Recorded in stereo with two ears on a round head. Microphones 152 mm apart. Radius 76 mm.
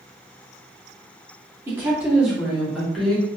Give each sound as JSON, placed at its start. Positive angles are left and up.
{"t": 1.7, "sound": "a woman speaking", "side_deg": -15, "distance_m": 1.2}